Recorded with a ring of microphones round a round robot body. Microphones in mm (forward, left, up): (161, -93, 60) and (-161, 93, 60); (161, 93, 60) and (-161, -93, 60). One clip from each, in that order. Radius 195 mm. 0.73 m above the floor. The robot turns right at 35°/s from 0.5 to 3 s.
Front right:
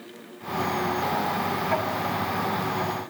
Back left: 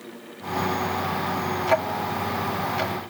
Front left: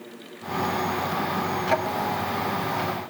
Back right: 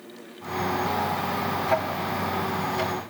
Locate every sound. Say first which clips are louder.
1.7 s ticking: back left 3 dB, front left 2 dB; 100° left, 1.4 m; by 3.0 s 145° left, 1.4 m